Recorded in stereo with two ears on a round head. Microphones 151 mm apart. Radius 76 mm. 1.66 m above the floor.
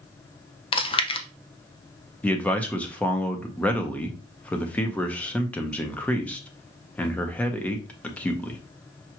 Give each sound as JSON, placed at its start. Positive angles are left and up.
{"t": 0.7, "sound": "chewing", "side_deg": 30, "distance_m": 0.5}
{"t": 2.2, "sound": "a man speaking", "side_deg": 10, "distance_m": 0.8}